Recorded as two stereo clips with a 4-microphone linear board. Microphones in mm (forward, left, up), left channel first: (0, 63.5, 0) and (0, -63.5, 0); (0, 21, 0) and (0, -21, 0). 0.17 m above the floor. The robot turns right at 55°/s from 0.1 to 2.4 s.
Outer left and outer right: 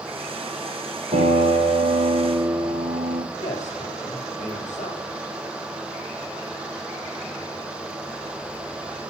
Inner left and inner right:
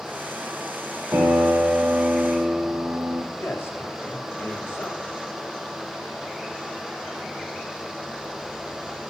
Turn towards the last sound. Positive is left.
turn(degrees=75)  # may be behind; listen again after turning